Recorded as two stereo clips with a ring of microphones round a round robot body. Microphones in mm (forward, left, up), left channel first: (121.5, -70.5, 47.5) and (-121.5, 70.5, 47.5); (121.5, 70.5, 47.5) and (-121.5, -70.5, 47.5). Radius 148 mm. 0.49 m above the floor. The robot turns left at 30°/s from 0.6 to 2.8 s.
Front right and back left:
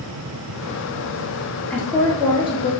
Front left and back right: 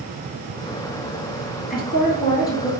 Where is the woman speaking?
55° left, 1.3 m; by 2.7 s 25° left, 1.3 m.